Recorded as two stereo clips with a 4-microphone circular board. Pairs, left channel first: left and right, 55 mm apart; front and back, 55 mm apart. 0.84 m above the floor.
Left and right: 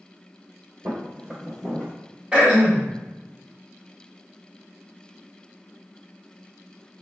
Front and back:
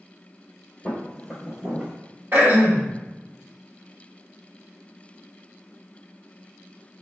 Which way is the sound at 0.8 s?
70° right.